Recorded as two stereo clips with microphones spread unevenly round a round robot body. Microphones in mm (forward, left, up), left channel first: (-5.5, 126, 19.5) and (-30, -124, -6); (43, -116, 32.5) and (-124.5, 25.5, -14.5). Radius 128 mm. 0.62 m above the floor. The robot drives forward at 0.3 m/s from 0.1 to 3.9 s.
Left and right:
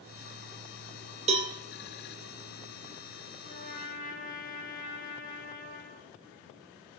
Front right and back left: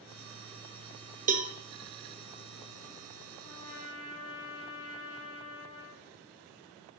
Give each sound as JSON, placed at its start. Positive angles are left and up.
{"t": 1.3, "sound": "a cowbell", "azimuth_deg": -165, "distance_m": 0.7}
{"t": 3.4, "sound": "a trumpet", "azimuth_deg": 30, "distance_m": 1.7}